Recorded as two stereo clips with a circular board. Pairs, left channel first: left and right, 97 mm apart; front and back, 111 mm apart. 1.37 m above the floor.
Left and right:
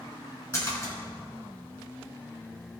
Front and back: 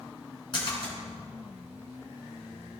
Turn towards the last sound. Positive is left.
turn(degrees=35)